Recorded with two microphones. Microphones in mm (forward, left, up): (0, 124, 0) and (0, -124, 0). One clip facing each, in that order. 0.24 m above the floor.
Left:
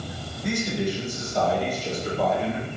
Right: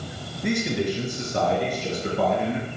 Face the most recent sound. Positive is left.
turn(degrees=-60)  # may be behind; listen again after turning